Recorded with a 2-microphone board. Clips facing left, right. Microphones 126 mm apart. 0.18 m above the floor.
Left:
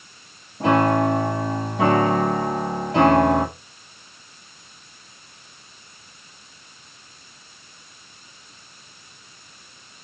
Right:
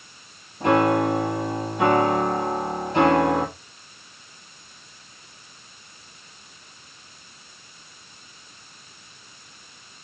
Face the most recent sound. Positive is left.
turn(degrees=75)  # may be behind; listen again after turning